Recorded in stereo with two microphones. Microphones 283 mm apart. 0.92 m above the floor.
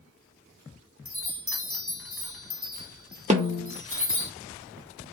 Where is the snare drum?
25° right (ahead or behind), 0.7 m.